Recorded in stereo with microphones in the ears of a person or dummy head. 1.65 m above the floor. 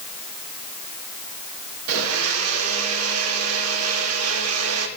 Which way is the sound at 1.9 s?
85° right.